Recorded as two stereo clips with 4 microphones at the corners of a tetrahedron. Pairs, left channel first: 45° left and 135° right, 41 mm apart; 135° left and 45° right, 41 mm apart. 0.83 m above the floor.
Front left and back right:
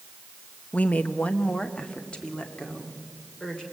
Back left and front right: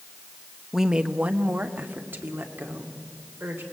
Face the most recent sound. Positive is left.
turn(degrees=-25)